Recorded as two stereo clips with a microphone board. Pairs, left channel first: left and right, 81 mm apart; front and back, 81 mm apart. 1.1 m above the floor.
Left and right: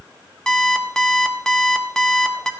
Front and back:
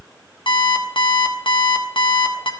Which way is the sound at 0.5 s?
5° left.